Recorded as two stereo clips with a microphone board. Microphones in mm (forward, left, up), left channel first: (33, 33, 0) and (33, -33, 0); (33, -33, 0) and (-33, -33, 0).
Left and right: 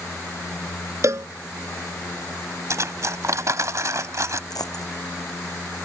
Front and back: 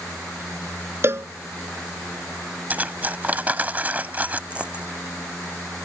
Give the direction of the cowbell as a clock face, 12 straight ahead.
4 o'clock.